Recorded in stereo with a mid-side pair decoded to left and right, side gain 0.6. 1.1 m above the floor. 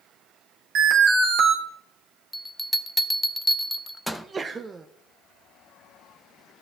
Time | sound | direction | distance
0.8 | an alarm | 55° right | 2.5 m
2.3 | a bell | straight ahead | 0.6 m
4.1 | a sneeze | 30° right | 0.6 m